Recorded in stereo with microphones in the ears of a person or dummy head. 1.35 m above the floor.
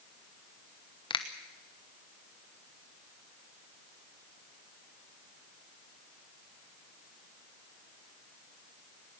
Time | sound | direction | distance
1.1 | a finger snap | 35° left (ahead or behind) | 1.1 m